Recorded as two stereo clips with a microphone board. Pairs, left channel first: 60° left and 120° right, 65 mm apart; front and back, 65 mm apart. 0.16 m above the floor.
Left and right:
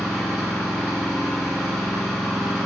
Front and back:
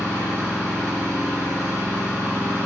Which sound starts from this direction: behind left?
An engine running, at 0.0 s.